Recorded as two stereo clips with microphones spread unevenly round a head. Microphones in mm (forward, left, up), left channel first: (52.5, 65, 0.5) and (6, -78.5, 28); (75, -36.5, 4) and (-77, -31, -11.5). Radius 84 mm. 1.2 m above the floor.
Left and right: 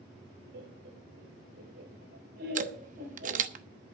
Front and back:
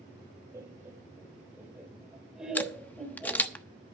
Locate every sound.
0.5 s laughter: 110° right, 5 m; by 3.5 s 90° right, 4.5 m
2.5 s a camera shutter: 80° right, 1.1 m